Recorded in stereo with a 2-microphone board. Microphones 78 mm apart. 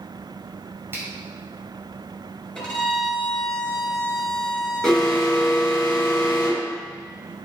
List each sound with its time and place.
0.9 s a finger snap: 30° right (ahead or behind), 2 m
2.5 s a violin: 5° left (ahead or behind), 3 m
4.8 s an alarm: 5° left (ahead or behind), 4.5 m